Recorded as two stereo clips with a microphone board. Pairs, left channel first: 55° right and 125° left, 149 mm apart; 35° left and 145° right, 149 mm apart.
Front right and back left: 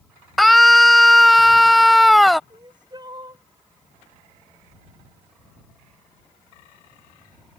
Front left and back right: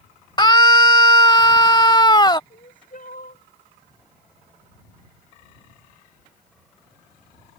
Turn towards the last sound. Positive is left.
turn(degrees=65)